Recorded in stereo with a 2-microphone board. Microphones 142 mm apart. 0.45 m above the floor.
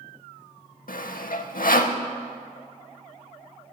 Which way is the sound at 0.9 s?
75° left (ahead or behind).